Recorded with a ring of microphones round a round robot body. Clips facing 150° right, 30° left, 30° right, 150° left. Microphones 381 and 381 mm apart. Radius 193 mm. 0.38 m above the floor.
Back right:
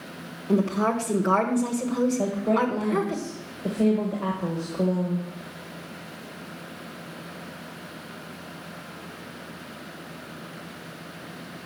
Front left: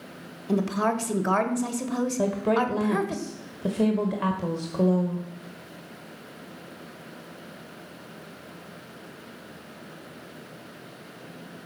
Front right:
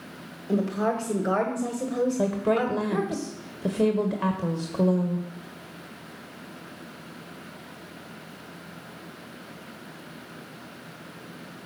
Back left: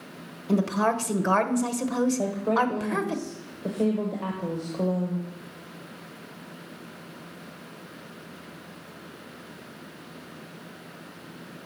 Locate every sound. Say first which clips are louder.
0.5 s a woman speaking: back right 2 dB, back left 1 dB; 95° left, 1.4 m
2.2 s a woman speaking: even, front right 2 dB; straight ahead, 1.3 m